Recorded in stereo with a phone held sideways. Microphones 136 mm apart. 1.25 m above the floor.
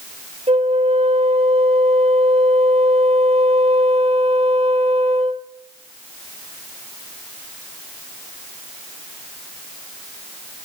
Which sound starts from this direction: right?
A flute, at 0.5 s.